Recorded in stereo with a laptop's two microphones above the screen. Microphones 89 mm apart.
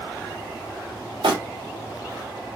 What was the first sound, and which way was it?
Crumpling, 75° right (ahead or behind).